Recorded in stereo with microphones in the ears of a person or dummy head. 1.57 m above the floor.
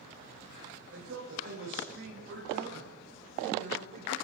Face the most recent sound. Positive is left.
turn(degrees=-45)  # may be behind; listen again after turning